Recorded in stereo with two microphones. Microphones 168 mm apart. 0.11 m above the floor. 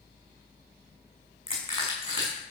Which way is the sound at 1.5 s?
30° left (ahead or behind).